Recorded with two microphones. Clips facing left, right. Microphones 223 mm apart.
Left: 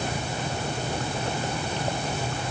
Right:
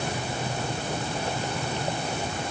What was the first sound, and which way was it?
Only background noise.